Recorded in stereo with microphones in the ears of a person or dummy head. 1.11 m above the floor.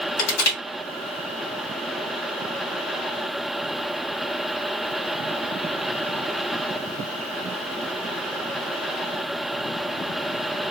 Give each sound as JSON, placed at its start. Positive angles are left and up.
{"t": 0.2, "sound": "crushing", "side_deg": 75, "distance_m": 2.5}